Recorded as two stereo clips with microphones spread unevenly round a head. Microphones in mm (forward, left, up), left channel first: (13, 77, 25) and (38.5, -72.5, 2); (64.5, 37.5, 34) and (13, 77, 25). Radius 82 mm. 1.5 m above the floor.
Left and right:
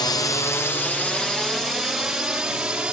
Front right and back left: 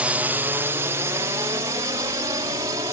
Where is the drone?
150° left; by 2.9 s 165° right.